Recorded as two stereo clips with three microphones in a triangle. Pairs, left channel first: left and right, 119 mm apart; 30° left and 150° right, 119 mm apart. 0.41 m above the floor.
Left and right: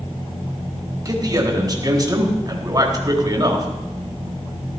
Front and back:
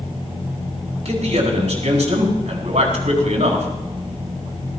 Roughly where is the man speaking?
Behind right.